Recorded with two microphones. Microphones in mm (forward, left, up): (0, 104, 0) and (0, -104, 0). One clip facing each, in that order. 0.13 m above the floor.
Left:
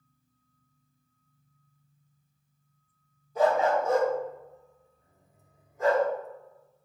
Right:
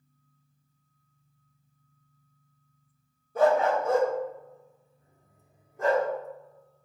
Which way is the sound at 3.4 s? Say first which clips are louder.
Right 1 dB; 55° right (ahead or behind).